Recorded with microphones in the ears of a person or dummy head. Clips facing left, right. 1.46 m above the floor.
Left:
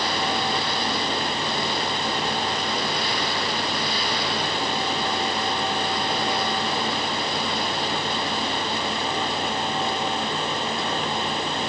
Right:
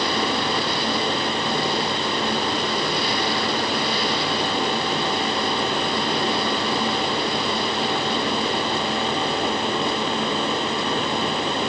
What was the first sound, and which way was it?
Only background noise.